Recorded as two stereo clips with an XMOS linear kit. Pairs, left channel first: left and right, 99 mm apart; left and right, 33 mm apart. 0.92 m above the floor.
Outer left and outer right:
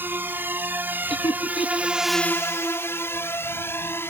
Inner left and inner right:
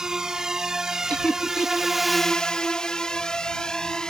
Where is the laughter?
55° left (ahead or behind).